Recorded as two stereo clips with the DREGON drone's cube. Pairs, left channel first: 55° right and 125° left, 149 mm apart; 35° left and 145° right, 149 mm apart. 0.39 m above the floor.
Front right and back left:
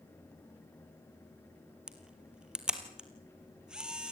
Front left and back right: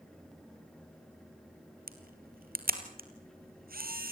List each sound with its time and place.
1.9 s a camera shutter: 150° right, 2.5 m